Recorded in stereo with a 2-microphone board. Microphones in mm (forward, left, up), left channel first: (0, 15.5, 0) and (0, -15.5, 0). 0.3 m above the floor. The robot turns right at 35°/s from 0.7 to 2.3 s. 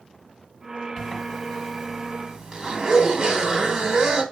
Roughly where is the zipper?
Behind left.